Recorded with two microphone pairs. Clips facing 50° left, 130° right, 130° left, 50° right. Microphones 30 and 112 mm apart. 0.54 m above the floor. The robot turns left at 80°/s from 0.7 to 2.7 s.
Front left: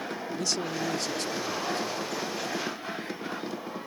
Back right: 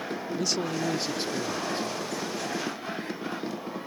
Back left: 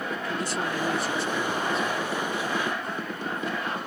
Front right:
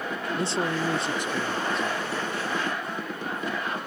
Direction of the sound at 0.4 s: 55° right.